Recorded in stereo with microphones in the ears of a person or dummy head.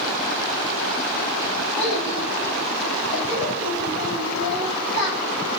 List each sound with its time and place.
1.8 s a child speaking: 40° left (ahead or behind), 5 m